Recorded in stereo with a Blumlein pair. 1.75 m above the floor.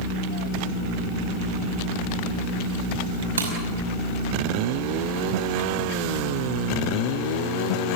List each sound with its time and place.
3.4 s breaking glass: 70° right, 5 m